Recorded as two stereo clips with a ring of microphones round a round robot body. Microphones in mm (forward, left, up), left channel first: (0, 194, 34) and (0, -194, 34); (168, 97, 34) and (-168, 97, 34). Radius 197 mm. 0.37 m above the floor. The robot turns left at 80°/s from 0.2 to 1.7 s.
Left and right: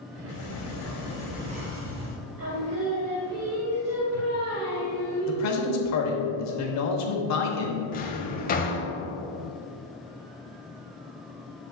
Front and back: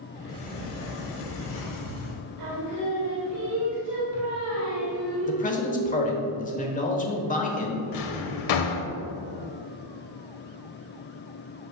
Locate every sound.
0.3 s a sliding door: 80° left, 1.1 m; by 2.2 s 30° right, 1.1 m
2.4 s singing: 140° right, 2 m
5.3 s a man speaking: 60° left, 1.2 m
7.9 s a drawer: 20° left, 0.8 m